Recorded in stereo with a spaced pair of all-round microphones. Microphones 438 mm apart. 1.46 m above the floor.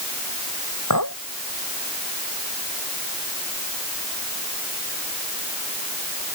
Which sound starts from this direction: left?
A clink, at 0.9 s.